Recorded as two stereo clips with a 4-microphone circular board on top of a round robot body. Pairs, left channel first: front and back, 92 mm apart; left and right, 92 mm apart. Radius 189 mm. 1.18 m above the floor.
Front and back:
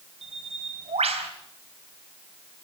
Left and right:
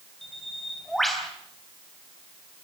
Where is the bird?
Straight behind, 3 m.